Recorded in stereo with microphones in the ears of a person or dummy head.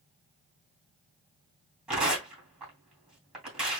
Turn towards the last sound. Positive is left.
turn(degrees=-5)  # may be behind; listen again after turning